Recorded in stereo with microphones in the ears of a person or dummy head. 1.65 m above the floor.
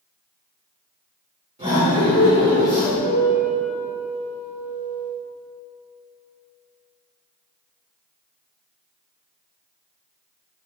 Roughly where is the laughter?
Right.